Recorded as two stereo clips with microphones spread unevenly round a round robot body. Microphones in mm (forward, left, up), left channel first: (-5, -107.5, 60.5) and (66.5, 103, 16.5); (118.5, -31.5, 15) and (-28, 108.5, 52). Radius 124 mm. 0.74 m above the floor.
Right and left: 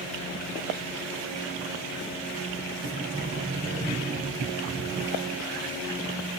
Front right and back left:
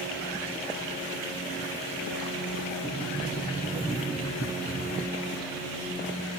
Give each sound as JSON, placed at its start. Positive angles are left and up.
{"t": 2.8, "sound": "a sliding door", "azimuth_deg": 25, "distance_m": 2.5}